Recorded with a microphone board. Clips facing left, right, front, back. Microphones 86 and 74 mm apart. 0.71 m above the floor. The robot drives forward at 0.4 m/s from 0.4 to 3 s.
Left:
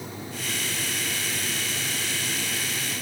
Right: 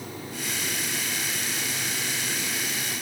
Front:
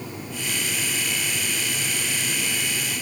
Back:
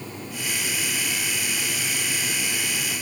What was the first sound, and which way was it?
Only background noise.